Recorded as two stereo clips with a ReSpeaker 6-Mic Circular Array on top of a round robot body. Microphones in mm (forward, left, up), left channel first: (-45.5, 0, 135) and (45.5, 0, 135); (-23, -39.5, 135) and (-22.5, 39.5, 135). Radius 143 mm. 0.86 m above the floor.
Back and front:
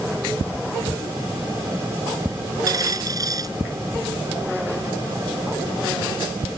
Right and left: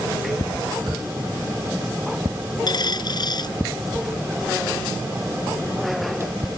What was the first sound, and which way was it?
A dropped coin, 50° right.